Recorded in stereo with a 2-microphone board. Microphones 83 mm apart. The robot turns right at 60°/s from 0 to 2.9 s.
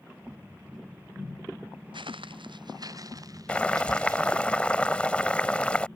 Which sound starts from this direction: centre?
Boiling, at 3.5 s.